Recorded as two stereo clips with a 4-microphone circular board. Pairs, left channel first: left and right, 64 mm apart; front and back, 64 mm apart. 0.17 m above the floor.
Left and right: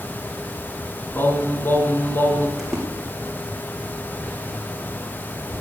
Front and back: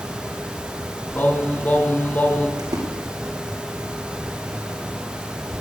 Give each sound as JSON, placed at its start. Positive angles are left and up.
{"t": 1.1, "sound": "singing", "azimuth_deg": 50, "distance_m": 1.9}
{"t": 2.6, "sound": "a splash", "azimuth_deg": -175, "distance_m": 3.0}